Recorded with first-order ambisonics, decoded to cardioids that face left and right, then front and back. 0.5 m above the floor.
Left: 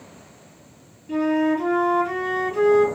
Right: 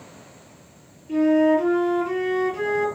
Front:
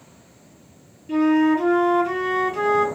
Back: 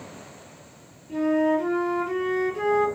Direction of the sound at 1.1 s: 20° left.